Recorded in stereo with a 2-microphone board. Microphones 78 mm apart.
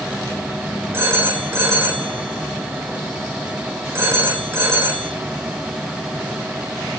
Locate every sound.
0.9 s a phone ringing: 30° right (ahead or behind), 3.5 m